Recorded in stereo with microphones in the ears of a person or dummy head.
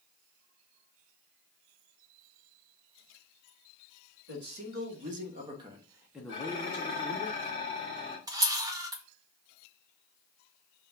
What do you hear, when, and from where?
4.3 s a man speaking: 55° right (ahead or behind), 1.2 m; by 7.3 s 25° left (ahead or behind), 1.0 m
6.3 s dishes clattering: 35° left (ahead or behind), 1.7 m
8.3 s a camera shutter: 20° right (ahead or behind), 0.7 m